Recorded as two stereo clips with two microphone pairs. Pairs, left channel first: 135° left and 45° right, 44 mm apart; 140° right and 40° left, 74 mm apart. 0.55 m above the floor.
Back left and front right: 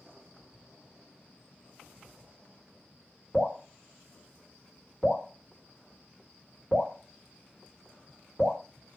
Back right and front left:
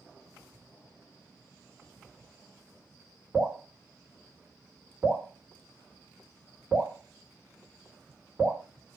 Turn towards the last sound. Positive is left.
turn(degrees=70)